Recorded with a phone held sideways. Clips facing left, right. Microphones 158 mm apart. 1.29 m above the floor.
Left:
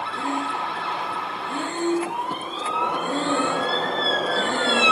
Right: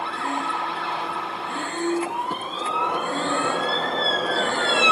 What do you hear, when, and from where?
0.1 s breathing: 20° left (ahead or behind), 0.6 m